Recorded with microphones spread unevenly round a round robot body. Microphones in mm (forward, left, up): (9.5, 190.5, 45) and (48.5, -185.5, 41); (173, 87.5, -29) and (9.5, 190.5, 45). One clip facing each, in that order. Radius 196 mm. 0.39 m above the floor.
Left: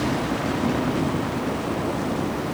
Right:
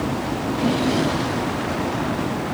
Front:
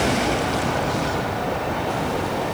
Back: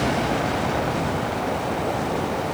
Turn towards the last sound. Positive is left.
No sound to turn to.